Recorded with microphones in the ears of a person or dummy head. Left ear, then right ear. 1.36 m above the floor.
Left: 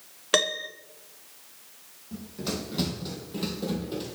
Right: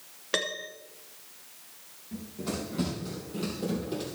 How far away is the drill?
I don't hear a drill.